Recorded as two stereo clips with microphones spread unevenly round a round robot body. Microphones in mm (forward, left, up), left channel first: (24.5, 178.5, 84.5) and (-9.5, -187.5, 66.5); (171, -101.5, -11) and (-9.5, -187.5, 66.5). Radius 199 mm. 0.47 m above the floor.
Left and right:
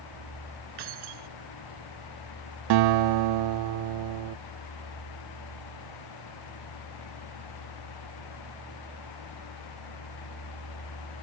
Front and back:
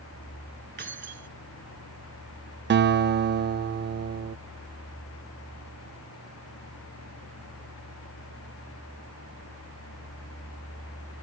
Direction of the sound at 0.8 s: 120° right.